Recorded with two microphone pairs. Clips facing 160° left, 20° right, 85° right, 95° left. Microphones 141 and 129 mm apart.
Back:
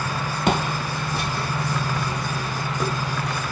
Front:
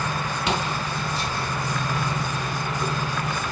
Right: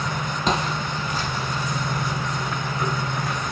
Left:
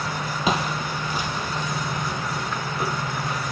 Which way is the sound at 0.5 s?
175° left.